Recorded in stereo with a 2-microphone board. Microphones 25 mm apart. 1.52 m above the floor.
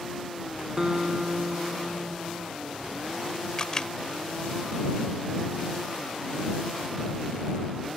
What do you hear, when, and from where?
0.8 s a guitar: 25° right (ahead or behind)
3.6 s a camera shutter: 30° left (ahead or behind)